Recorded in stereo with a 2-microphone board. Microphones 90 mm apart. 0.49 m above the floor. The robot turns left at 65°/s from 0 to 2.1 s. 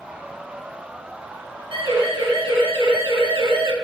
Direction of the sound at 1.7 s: 70° right (ahead or behind).